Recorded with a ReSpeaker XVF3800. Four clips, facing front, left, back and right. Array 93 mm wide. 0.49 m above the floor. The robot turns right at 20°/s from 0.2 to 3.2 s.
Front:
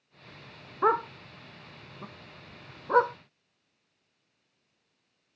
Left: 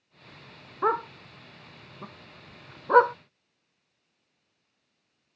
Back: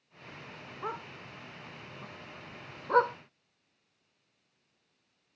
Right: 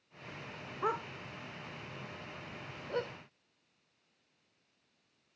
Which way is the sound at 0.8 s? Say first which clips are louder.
Left 9 dB, front 14 dB; 35° left.